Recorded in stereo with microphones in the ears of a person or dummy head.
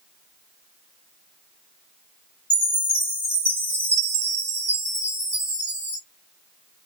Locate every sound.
2.5 s a chime: 10° right (ahead or behind), 1.6 m